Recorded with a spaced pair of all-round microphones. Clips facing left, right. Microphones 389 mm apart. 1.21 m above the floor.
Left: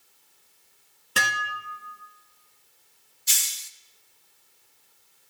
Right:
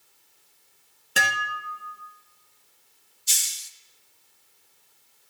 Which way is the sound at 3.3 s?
70° left (ahead or behind).